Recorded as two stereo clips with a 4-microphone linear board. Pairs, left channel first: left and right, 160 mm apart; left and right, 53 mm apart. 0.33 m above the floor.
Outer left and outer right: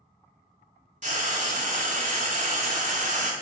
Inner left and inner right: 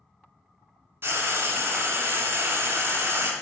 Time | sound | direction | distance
1.0 | frying | 50° right (ahead or behind) | 0.7 m